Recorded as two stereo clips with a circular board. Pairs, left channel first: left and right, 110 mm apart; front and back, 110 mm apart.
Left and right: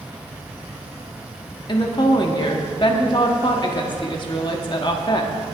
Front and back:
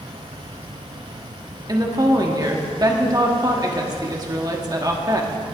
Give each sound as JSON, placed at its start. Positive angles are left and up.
{"t": 1.7, "sound": "a woman speaking", "azimuth_deg": 130, "distance_m": 1.2}